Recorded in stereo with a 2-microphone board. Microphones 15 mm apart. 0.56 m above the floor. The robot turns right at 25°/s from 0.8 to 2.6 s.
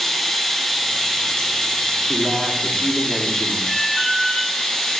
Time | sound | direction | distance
0.0 | running water | 40° left | 1.2 m
2.1 | a man speaking | 5° right (ahead or behind) | 1.0 m
3.7 | an alarm | 45° left (ahead or behind) | 3 m